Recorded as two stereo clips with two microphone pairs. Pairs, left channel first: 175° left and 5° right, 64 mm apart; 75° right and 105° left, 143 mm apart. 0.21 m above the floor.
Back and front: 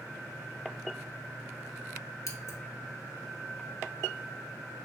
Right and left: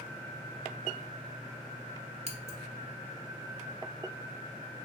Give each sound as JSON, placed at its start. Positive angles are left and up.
{"t": 2.3, "sound": "scissors", "azimuth_deg": 145, "distance_m": 0.8}